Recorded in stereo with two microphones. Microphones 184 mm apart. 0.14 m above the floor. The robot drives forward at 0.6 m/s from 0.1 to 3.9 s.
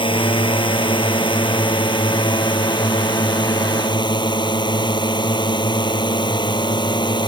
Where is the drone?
30° left (ahead or behind); by 7.3 s 25° left (ahead or behind).